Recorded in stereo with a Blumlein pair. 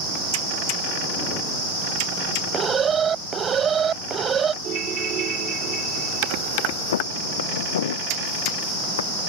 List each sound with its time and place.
2.5 s an alarm: 20° right
4.6 s a ringtone: 25° right
6.9 s footsteps: 60° left